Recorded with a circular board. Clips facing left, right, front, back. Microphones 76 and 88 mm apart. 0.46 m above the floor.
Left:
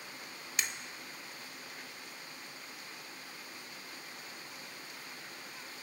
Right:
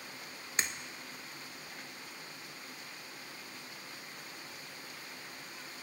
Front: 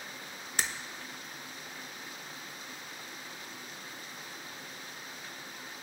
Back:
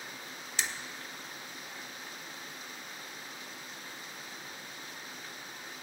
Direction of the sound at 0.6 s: 35° right.